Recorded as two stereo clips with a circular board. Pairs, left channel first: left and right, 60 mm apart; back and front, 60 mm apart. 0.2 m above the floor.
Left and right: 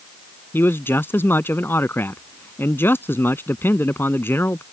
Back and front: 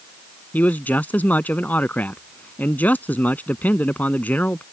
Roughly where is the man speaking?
Behind left.